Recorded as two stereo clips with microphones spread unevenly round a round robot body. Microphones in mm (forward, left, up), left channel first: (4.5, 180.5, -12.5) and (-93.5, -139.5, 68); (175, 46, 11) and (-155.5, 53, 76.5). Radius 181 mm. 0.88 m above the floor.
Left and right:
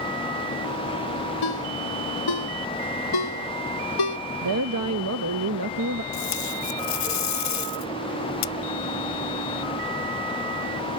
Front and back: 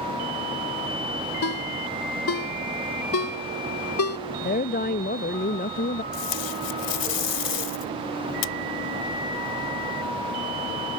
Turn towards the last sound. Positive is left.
turn(degrees=25)